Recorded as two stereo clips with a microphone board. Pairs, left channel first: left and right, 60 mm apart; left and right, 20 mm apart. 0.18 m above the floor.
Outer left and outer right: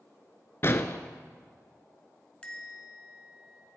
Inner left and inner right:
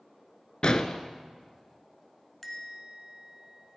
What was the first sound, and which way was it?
An explosion, 45° left (ahead or behind).